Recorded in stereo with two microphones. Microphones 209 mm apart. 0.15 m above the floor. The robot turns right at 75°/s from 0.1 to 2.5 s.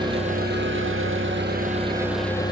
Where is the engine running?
155° right, 1.2 m; by 2.5 s 25° left, 1.2 m.